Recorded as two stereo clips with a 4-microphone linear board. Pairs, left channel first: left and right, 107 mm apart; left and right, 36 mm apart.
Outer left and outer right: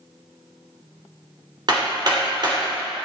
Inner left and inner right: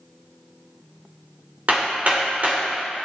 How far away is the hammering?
About 2.5 m.